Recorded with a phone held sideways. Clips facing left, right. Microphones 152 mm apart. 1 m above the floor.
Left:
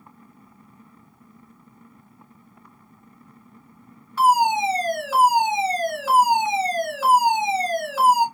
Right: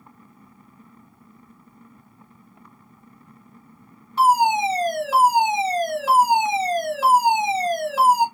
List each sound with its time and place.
4.2 s a fire alarm: 25° right (ahead or behind), 1.7 m